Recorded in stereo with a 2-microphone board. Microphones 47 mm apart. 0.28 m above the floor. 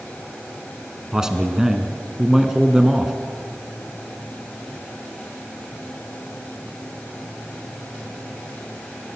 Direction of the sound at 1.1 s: 10° right (ahead or behind).